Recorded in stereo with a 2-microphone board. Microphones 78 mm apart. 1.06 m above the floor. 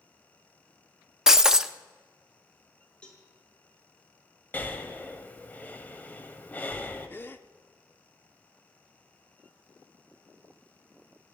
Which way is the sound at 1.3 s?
10° right (ahead or behind).